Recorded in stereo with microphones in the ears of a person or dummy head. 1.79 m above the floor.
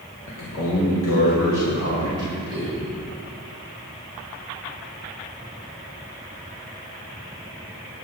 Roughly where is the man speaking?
Left.